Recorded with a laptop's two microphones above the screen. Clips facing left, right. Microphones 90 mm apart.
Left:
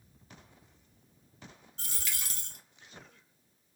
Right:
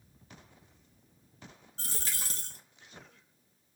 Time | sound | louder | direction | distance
1.8 | a dropped coin | right 1 dB | 35° right (ahead or behind) | 0.5 m